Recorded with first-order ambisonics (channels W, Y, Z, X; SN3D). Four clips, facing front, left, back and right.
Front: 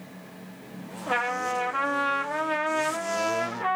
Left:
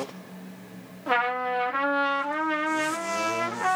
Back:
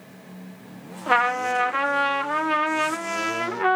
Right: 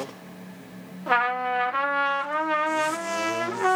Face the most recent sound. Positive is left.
turn(degrees=-170)